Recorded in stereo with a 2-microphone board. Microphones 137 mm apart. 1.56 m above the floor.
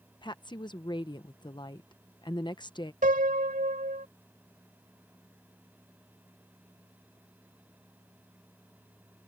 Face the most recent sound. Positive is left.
turn(degrees=-80)